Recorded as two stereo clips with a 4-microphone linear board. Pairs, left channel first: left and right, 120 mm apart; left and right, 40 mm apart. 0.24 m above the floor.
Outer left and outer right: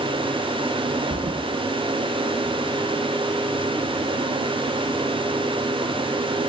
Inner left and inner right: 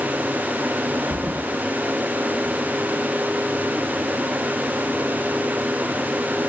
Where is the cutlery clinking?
I don't hear cutlery clinking.